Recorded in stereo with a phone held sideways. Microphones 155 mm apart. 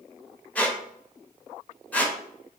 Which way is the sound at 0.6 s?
10° left (ahead or behind).